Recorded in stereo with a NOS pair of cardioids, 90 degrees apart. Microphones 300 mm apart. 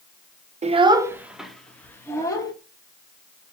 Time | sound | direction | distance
0.6 | a child speaking | 25° right | 0.8 m